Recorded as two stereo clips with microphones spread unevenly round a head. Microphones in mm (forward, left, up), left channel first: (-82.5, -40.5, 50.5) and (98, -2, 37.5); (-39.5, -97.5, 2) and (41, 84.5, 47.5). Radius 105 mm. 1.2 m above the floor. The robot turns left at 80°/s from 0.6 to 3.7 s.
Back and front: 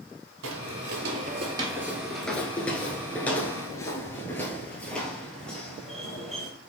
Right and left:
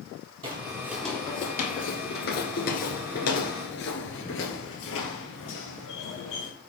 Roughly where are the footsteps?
Ahead.